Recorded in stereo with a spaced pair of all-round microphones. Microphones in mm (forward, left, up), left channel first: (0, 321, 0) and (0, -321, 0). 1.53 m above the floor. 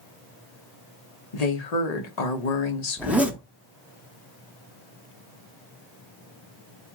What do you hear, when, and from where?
1.3 s a woman speaking: 75° left (ahead or behind), 1.0 m
3.0 s a zipper: centre (ahead or behind), 0.6 m